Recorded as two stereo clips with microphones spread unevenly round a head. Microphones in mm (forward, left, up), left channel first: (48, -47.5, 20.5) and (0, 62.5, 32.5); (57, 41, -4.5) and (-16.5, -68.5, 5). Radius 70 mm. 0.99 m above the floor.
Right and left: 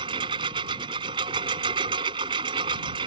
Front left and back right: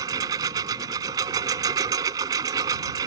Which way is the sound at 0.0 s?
170° left.